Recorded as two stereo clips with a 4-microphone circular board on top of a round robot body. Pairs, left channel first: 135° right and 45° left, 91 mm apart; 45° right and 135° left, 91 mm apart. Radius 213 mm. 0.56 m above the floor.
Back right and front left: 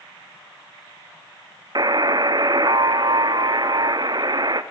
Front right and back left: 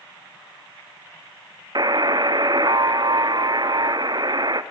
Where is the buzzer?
90° left, 0.6 m.